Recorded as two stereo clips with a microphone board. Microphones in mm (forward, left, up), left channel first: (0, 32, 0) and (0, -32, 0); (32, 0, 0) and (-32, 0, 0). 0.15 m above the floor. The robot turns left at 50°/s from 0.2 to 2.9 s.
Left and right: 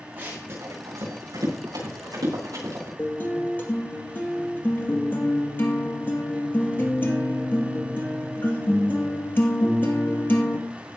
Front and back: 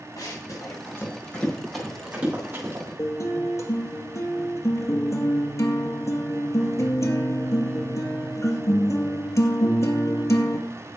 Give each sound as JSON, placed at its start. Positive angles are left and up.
{"t": 0.2, "sound": "running footsteps", "azimuth_deg": -25, "distance_m": 8.5}
{"t": 3.0, "sound": "a guitar", "azimuth_deg": 35, "distance_m": 2.5}